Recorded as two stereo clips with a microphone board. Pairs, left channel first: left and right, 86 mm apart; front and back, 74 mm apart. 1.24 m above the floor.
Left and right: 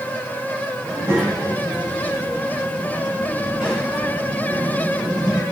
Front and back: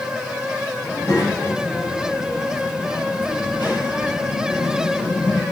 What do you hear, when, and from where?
0.8 s a child speaking: 40° right, 4.5 m; by 5.4 s 15° right, 7 m